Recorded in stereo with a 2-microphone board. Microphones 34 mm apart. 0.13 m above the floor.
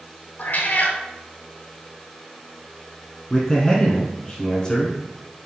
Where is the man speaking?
20° left (ahead or behind), 1.4 m.